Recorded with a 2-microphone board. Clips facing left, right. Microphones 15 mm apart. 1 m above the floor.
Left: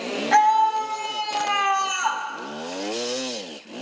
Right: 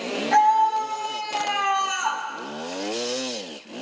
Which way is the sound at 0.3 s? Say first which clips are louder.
Left 1 dB; 45° left (ahead or behind).